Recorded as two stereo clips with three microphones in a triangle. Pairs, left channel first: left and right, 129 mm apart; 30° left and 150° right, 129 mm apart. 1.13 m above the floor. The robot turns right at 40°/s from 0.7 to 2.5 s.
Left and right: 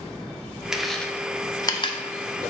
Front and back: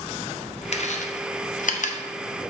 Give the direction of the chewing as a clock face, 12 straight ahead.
12 o'clock.